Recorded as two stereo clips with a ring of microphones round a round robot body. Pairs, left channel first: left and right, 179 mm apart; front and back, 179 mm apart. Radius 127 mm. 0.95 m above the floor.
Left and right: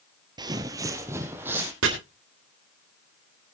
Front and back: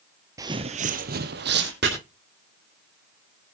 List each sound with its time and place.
0.4 s footsteps: 125° right, 1.0 m; by 1.7 s 170° right, 1.9 m
1.8 s chopping: 125° right, 2.5 m